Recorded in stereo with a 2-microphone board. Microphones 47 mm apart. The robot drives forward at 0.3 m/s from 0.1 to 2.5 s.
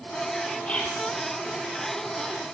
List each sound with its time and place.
0.6 s whispering: 30° left (ahead or behind), 1.3 m; by 1.2 s 35° left (ahead or behind), 1.2 m